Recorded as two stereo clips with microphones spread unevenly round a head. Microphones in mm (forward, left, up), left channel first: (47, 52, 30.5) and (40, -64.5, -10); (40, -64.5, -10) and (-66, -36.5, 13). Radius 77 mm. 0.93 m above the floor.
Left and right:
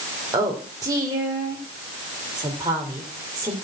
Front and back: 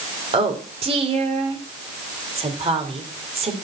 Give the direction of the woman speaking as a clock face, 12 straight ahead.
5 o'clock.